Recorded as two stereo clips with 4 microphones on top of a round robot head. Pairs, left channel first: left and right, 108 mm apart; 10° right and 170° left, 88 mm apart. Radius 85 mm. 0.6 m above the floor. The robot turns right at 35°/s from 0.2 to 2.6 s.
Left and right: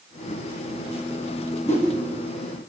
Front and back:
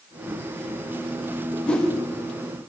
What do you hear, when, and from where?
1.7 s a whoosh: 65° left, 1.5 m; by 1.9 s 75° left, 1.5 m